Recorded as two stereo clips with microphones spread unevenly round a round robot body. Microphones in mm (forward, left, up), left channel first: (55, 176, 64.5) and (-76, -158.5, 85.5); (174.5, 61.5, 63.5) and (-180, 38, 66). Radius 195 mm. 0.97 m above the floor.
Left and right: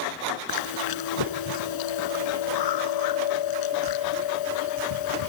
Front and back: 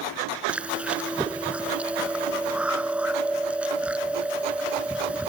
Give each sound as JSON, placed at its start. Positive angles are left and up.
{"t": 0.5, "sound": "chewing", "azimuth_deg": 95}